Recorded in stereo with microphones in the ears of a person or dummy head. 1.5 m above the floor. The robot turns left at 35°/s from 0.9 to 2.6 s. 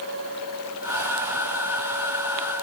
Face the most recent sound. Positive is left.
No sound to turn to.